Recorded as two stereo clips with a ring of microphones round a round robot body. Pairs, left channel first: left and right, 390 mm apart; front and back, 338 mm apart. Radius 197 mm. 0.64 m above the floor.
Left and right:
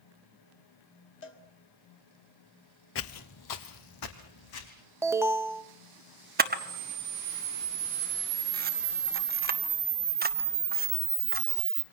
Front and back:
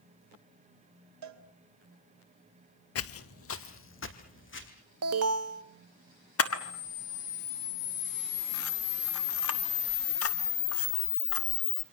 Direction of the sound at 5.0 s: 170° right.